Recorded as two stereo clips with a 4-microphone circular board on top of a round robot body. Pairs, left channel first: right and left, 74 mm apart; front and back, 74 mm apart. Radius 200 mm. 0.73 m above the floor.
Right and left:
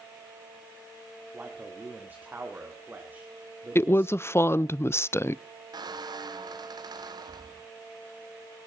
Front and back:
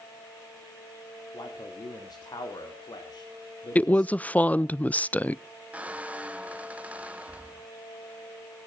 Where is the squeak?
110° left, 0.9 m.